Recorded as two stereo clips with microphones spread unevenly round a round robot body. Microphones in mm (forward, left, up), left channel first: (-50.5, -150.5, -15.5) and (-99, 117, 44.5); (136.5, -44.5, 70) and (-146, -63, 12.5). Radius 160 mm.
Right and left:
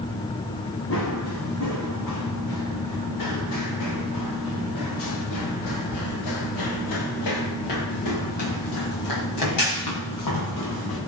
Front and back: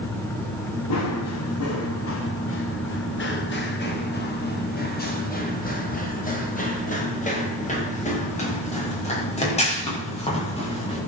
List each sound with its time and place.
0.9 s running footsteps: 25° right, 3.5 m; by 11.0 s 65° right, 11.5 m